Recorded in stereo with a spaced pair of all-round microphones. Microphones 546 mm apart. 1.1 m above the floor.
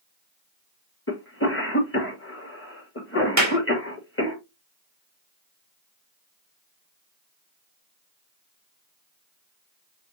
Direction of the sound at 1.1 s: 20° left (ahead or behind).